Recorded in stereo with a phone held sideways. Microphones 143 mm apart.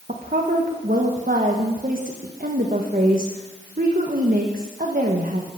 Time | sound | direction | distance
0.1 | a woman speaking | 70° right (ahead or behind) | 1.3 m